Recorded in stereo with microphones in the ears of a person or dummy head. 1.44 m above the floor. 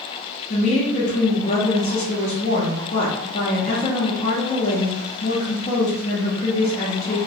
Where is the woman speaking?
35° left (ahead or behind), 0.5 m.